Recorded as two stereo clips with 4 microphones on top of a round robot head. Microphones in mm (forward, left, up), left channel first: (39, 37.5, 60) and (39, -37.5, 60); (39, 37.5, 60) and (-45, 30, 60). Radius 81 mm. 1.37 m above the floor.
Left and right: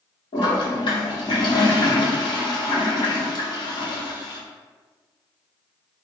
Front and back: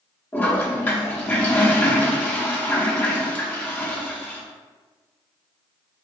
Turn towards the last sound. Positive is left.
turn(degrees=80)